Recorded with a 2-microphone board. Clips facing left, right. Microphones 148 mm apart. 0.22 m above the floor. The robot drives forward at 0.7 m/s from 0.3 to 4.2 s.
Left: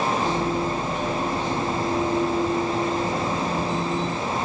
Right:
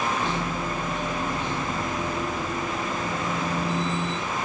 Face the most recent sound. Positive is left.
No sound to turn to.